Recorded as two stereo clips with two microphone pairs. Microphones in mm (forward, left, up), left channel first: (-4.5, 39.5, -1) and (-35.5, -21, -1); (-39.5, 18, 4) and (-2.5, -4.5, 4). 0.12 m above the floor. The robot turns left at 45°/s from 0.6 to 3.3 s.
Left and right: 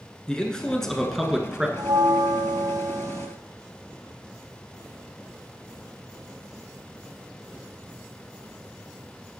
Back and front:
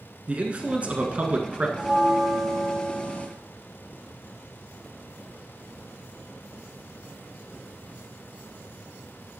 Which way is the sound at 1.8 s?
100° right.